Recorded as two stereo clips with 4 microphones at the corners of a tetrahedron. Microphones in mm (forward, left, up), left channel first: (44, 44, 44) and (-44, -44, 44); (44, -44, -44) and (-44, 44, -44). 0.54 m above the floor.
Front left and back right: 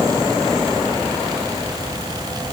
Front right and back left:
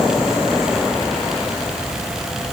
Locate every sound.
Only background noise.